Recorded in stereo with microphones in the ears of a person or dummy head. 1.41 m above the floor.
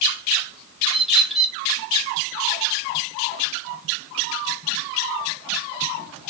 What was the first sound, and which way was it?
A bird, centre (ahead or behind).